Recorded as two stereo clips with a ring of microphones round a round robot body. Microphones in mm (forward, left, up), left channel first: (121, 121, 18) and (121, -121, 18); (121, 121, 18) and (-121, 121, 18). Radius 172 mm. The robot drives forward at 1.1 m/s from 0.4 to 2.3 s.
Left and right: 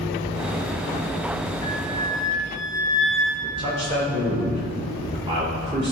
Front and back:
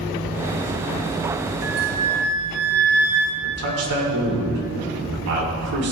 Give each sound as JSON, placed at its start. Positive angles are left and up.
{"t": 1.6, "sound": "a flute", "azimuth_deg": 165, "distance_m": 0.8}
{"t": 3.4, "sound": "a man speaking", "azimuth_deg": -165, "distance_m": 2.0}